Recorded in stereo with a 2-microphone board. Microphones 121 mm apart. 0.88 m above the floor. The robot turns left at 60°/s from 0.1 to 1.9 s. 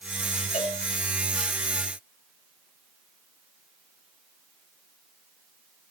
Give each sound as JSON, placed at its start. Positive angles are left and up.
{"t": 0.5, "sound": "a cowbell", "side_deg": 85, "distance_m": 8.0}